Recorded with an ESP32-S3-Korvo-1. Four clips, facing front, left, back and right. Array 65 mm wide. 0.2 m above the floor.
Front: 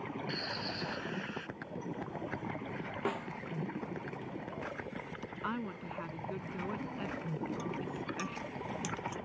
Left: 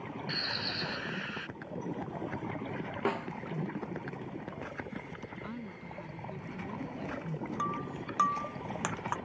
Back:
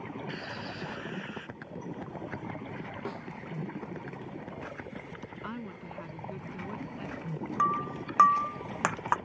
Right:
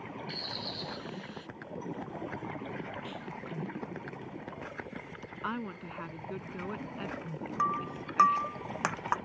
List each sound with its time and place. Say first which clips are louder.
0.3 s a bird: left 4 dB, even; 95° left
3.0 s a snare drum: left 9 dB, front 5 dB; 75° left
5.4 s a woman speaking: right 6 dB, front 3 dB; 65° right
7.6 s breaking glass: right 7 dB, back 10 dB; 165° right